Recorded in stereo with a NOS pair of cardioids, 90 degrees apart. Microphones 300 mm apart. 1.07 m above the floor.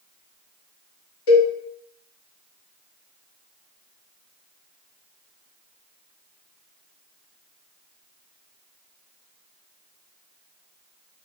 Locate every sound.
1.3 s a cowbell: 50° left, 1.4 m